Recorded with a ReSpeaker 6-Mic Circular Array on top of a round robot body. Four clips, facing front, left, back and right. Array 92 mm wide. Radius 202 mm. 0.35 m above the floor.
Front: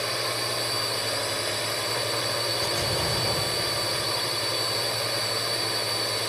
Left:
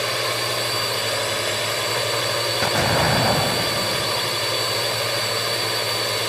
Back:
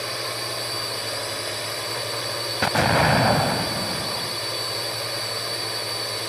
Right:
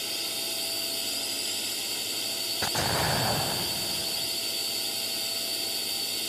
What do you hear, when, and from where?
0.0 s a drone: 90° left
2.6 s an explosion: 155° left